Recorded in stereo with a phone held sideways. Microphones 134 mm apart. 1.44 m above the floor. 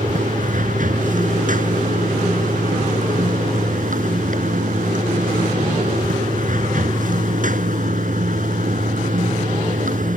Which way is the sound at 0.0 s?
85° right.